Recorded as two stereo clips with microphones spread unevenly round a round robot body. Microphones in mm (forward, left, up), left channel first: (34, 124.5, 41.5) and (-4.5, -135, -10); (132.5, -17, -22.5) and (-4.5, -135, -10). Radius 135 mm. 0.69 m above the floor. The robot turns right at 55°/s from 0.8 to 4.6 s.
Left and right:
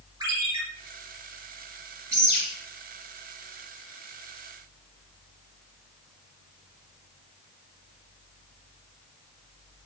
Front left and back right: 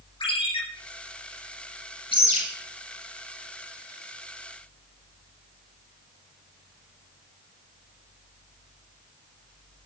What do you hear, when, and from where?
0.2 s a ringtone: 20° right, 6.5 m
2.1 s a bird: 20° right, 7.5 m; by 2.4 s straight ahead, 7.5 m